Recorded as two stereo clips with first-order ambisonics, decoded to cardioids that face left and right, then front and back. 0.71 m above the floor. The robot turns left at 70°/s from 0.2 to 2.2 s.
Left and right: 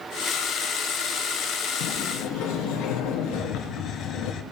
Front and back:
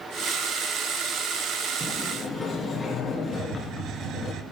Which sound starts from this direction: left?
A sliding door, at 1.8 s.